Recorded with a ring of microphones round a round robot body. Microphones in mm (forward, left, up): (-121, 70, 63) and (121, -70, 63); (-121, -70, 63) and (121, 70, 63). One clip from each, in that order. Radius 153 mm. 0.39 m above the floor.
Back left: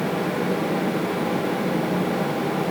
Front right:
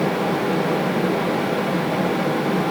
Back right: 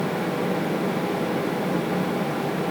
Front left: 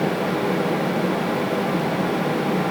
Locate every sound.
Only background noise.